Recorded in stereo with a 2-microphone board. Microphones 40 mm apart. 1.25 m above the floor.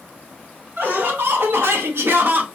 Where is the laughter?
50° right (ahead or behind), 1.4 m.